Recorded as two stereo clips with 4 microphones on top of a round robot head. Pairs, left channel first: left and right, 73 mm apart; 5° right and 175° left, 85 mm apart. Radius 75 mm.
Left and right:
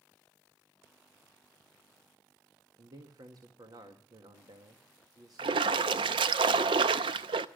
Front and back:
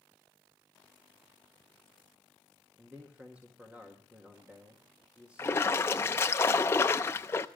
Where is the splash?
75° right, 0.6 m.